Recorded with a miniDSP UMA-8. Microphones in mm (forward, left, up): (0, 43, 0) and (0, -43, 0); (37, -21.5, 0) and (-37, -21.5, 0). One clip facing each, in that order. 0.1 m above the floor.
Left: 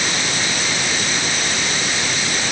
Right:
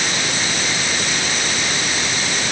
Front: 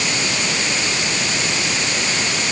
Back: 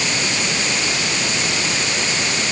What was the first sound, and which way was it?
Only background noise.